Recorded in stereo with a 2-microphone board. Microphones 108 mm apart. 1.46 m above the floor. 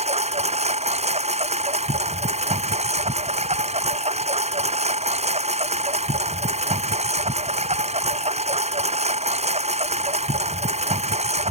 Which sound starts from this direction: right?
A lawn mower, at 0.0 s.